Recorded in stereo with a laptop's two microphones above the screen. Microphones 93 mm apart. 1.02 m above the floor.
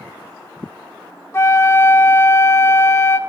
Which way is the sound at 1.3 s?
30° left (ahead or behind).